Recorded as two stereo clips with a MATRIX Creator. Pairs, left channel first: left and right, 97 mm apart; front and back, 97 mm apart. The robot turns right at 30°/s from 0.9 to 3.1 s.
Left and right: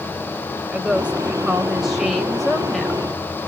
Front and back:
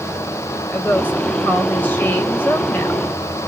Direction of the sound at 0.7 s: 40° right.